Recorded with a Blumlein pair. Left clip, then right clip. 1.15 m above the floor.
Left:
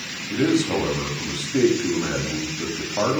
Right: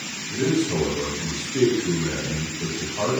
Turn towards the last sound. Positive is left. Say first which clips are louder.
# left 2 dB
turn(degrees=50)